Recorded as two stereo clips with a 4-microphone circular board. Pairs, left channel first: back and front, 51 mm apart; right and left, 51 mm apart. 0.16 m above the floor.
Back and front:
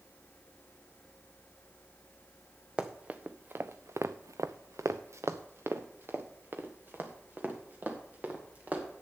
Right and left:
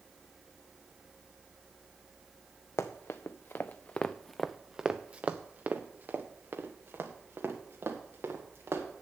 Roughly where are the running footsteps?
Right.